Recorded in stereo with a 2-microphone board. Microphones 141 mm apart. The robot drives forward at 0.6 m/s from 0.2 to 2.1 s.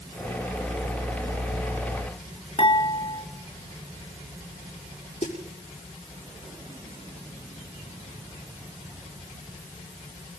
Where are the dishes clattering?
35° left (ahead or behind), 4 m.